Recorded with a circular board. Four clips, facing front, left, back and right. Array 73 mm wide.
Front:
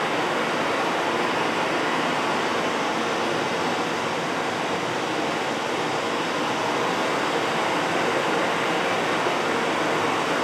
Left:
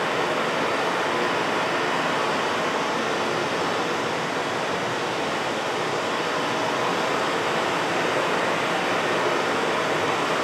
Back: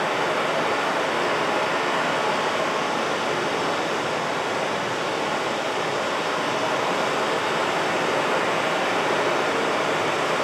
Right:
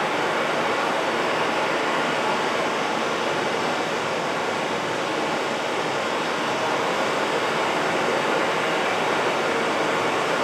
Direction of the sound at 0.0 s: 130° right.